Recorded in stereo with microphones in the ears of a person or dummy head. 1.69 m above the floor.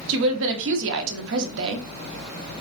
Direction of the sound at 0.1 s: 70° right (ahead or behind).